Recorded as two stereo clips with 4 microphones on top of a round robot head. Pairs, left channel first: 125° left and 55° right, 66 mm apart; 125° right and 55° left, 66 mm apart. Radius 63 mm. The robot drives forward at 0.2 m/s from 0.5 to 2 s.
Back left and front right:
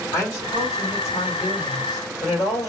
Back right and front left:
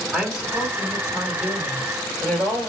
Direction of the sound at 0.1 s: 125° left.